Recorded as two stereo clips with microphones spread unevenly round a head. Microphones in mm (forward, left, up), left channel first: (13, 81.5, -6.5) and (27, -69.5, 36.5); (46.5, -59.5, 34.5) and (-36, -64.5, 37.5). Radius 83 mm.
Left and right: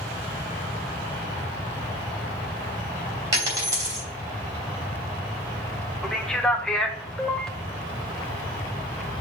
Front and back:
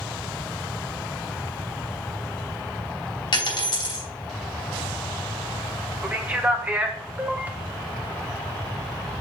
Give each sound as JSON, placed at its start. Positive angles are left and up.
{"t": 3.3, "sound": "a dropped coin", "azimuth_deg": -15, "distance_m": 3.0}
{"t": 6.0, "sound": "a man speaking", "azimuth_deg": 130, "distance_m": 0.6}